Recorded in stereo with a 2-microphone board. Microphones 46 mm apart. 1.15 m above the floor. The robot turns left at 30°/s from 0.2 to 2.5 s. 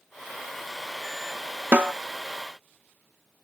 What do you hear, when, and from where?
1.7 s a snare drum: 40° right (ahead or behind), 0.6 m; by 1.9 s 45° right (ahead or behind), 0.6 m